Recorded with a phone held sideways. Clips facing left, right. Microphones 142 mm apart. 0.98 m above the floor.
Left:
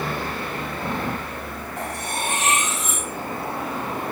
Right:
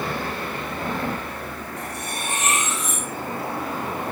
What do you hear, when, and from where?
1.8 s cutlery clinking: 80° left, 4.5 m